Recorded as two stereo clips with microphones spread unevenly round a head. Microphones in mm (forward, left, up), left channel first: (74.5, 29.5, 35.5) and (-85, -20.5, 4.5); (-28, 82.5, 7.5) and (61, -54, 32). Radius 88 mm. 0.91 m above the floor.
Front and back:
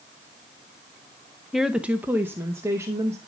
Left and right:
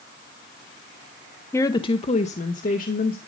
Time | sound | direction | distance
1.5 | a woman speaking | 135° left | 0.6 m